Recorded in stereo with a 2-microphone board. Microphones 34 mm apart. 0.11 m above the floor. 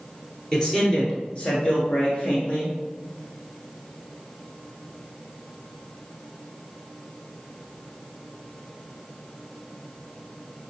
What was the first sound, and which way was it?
A man speaking, 20° left (ahead or behind).